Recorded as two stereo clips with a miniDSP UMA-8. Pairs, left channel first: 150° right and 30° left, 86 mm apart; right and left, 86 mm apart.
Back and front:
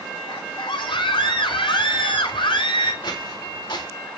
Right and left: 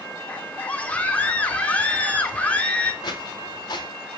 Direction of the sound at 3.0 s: 130° right.